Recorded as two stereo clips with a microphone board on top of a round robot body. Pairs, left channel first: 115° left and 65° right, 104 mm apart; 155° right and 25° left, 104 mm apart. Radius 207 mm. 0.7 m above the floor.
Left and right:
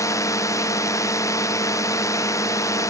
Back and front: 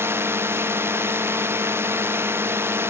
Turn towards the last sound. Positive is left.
turn(degrees=75)